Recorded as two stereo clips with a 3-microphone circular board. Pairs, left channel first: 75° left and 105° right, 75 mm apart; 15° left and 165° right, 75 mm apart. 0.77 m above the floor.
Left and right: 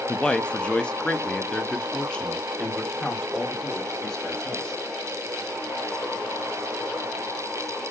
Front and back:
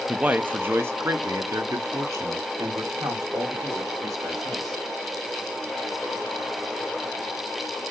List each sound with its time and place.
0.1 s a man speaking: 135° left, 0.6 m; by 4.8 s 155° left, 3 m